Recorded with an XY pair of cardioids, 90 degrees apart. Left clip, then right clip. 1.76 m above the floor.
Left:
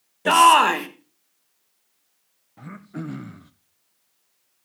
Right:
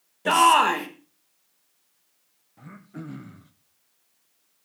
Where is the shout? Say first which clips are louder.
Left 4 dB; 30° left, 2.5 m.